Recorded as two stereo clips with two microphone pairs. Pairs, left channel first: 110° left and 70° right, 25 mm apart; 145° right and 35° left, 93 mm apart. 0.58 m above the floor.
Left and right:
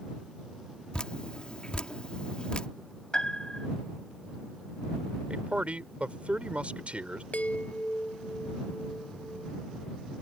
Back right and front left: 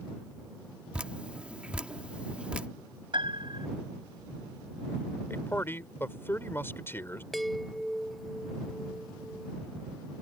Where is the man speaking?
85° right.